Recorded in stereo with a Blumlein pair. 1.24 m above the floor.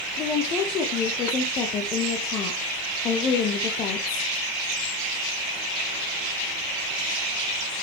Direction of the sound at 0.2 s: 30° left.